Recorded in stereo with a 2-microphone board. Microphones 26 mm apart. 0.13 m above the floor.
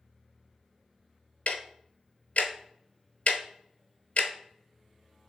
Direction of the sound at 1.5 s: 65° left (ahead or behind).